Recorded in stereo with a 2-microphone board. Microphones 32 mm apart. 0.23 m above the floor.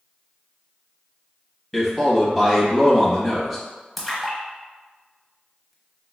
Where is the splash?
Centre (ahead or behind), 0.7 m.